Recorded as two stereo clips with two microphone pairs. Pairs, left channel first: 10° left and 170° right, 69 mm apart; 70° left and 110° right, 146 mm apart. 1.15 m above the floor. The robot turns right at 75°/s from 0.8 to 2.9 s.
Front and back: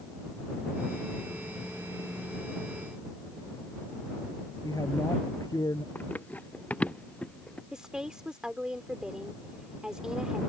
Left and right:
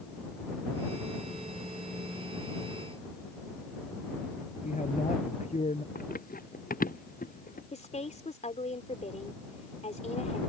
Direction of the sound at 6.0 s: 75° left.